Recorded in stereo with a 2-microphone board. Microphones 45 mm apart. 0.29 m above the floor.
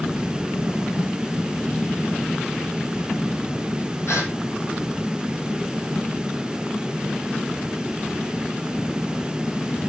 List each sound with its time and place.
4.1 s a gasp: 85° left, 9 m